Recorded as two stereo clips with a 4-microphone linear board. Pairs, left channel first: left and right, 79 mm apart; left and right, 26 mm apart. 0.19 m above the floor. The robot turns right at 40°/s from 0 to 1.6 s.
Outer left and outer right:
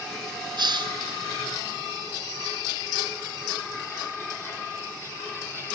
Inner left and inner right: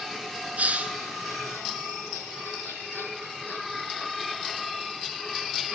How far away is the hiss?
About 1.0 m.